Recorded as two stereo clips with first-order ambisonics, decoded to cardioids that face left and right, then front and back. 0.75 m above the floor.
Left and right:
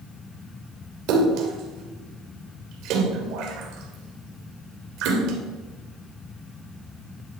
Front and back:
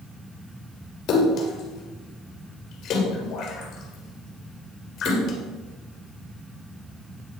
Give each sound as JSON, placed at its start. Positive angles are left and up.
{"t": 1.1, "sound": "a splash", "azimuth_deg": -55, "distance_m": 2.5}